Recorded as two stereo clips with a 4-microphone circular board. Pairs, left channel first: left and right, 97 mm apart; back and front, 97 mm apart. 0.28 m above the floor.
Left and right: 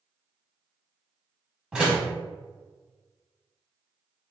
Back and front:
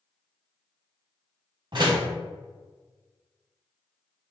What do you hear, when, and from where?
1.7 s a door slam: 10° right, 1.2 m